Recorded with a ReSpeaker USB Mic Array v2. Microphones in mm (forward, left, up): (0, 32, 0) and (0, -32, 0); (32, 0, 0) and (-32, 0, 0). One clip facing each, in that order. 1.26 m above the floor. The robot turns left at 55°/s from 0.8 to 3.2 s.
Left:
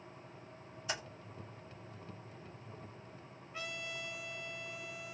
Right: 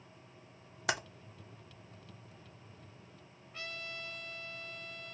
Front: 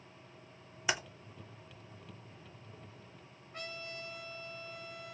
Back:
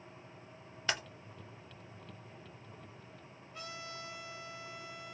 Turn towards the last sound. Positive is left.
turn(degrees=15)